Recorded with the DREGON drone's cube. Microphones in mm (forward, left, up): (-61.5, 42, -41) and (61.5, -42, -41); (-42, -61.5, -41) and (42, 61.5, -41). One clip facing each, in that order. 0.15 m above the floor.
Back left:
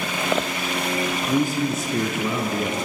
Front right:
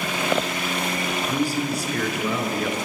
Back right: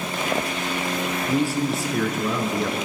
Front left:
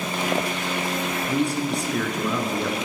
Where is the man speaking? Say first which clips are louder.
Back left 3 dB, back right 2 dB; 150° left, 1.2 m.